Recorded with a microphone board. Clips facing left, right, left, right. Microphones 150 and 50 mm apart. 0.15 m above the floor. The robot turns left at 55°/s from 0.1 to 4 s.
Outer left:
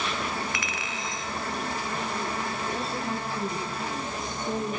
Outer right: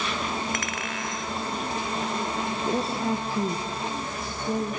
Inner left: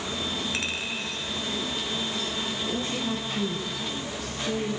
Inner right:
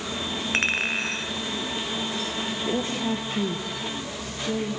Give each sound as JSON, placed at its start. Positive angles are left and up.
{"t": 0.5, "sound": "a clink", "azimuth_deg": -55, "distance_m": 1.2}
{"t": 2.6, "sound": "a woman speaking", "side_deg": -75, "distance_m": 5.0}